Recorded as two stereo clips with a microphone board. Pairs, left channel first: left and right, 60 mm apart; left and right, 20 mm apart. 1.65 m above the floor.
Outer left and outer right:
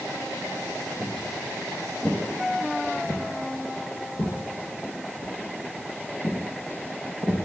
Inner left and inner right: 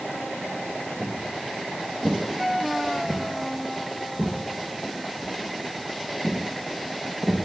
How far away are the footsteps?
About 3.5 m.